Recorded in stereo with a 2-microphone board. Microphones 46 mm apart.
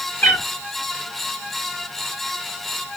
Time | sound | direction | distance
0.2 | a cat meowing | 40° left (ahead or behind) | 1.0 m